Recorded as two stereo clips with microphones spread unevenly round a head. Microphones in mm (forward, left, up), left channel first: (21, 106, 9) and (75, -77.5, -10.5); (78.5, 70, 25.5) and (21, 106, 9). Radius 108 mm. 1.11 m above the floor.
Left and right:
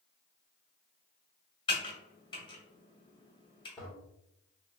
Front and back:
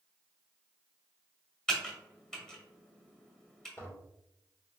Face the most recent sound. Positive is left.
turn(degrees=20)